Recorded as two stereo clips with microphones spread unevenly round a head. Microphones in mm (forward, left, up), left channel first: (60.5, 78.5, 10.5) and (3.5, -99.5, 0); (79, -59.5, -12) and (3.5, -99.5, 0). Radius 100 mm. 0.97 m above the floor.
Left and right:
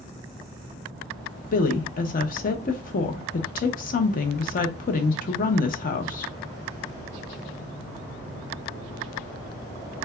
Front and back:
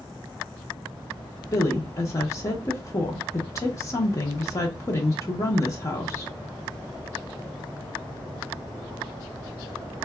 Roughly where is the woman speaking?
Ahead left.